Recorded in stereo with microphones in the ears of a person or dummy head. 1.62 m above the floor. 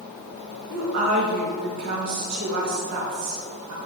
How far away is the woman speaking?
About 2.0 m.